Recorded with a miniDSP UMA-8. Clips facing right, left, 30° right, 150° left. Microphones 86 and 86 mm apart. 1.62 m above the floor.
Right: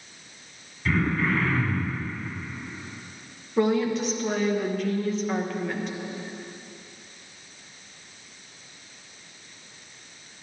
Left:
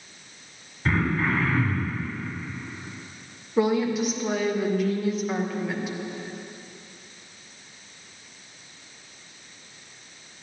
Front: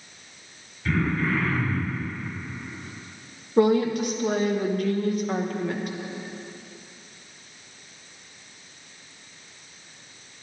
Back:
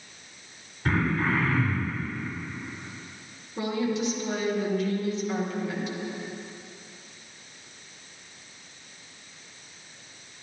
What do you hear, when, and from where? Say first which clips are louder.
0.8 s throat clearing: even, front 1 dB; 115° left, 2.5 m
3.6 s a woman speaking: even, front 8 dB; 5° left, 1.2 m